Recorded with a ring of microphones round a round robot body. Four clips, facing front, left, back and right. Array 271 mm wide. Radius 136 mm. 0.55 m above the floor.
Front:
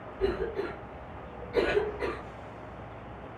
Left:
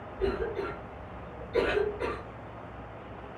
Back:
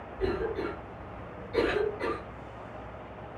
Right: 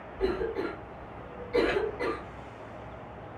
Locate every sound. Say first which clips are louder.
0.2 s a cough: right 1 dB, even; 90° right, 2 m